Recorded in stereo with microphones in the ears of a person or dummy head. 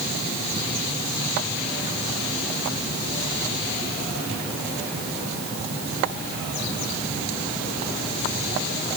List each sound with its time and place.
Only background noise.